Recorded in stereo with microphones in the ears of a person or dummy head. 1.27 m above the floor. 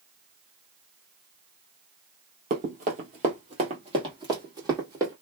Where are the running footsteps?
40° right (ahead or behind), 1.6 m; by 5.1 s 15° right (ahead or behind), 2 m.